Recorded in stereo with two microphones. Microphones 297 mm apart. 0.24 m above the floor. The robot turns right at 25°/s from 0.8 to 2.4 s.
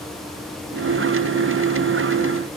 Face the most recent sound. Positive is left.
No sound to turn to.